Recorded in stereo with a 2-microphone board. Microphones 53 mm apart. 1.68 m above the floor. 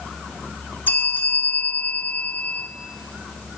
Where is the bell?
40° left (ahead or behind), 1.8 m.